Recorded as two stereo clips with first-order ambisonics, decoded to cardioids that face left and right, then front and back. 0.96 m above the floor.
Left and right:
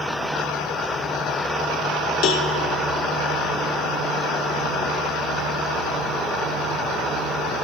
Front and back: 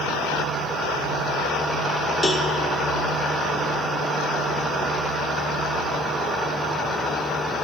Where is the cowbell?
80° left, 1.0 m.